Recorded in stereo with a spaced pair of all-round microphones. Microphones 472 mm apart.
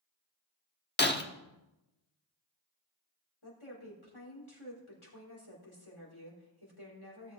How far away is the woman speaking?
About 3.5 m.